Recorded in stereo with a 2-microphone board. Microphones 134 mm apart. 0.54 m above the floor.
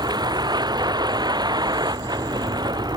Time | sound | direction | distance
0.0 | a vehicle | 30° right (ahead or behind) | ?